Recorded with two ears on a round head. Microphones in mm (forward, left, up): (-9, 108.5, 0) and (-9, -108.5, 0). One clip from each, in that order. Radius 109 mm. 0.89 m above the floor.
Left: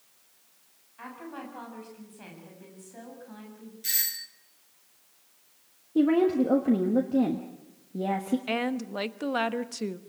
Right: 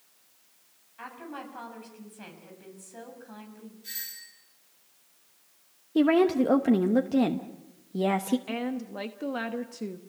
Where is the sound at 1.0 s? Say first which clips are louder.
Right 1 dB; 15° right (ahead or behind), 7 m.